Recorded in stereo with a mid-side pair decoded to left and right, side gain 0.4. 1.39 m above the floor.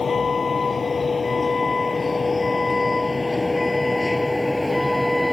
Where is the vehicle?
40° left; by 5.3 s 5° left.